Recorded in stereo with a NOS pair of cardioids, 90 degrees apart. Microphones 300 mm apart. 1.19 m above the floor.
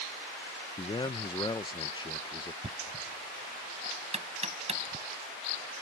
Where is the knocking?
20° right.